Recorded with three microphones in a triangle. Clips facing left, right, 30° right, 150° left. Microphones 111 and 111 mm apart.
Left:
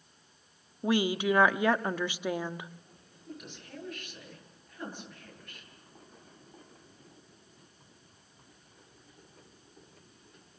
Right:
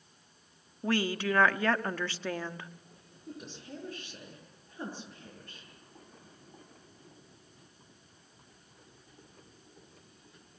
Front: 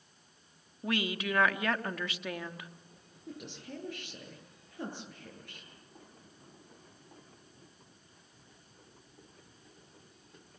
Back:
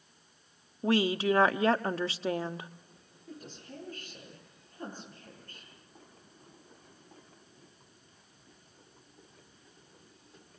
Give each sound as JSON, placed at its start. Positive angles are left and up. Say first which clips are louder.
{"t": 0.8, "sound": "a woman speaking", "louder": "left 3 dB, back 7 dB", "azimuth_deg": 150, "distance_m": 0.8}
{"t": 3.3, "sound": "a woman speaking", "louder": "right 2 dB, front 2 dB", "azimuth_deg": -30, "distance_m": 10.0}